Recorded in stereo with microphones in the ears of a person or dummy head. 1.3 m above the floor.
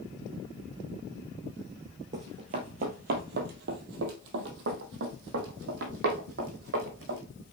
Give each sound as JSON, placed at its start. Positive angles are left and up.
{"t": 2.1, "sound": "running footsteps", "side_deg": -25, "distance_m": 1.5}